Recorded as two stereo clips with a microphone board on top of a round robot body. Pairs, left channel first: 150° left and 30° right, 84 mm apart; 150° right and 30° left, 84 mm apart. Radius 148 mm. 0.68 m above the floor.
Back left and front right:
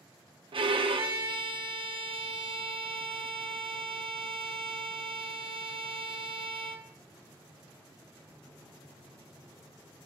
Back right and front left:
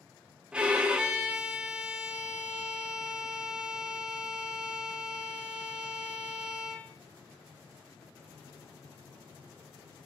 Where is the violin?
50° right, 0.7 m.